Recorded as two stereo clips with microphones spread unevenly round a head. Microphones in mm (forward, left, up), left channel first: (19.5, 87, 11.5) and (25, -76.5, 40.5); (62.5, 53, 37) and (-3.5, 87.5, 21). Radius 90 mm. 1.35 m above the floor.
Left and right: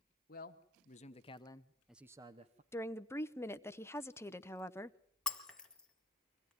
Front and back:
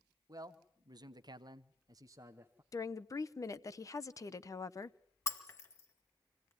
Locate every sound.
0.3 s a man speaking: 125° left, 1.7 m; by 2.6 s 140° right, 1.0 m
2.7 s a woman speaking: 20° left, 0.9 m
5.3 s breaking glass: straight ahead, 2.0 m